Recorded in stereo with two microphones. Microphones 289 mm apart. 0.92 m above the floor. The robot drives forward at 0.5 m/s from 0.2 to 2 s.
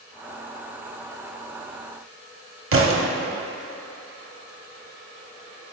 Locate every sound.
2.7 s a thud: 50° right (ahead or behind), 0.6 m